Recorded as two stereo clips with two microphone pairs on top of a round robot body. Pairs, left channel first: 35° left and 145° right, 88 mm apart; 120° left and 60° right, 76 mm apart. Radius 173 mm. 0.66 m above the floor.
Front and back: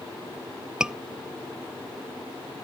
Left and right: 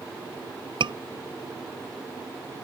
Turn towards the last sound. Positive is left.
turn(degrees=-65)